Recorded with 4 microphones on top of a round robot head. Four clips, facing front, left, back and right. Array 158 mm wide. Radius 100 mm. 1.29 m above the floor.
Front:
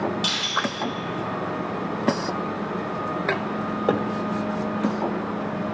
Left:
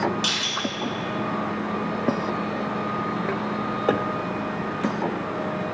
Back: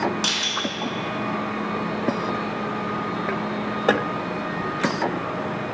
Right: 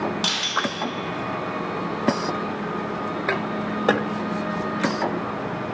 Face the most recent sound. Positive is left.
turn(degrees=-140)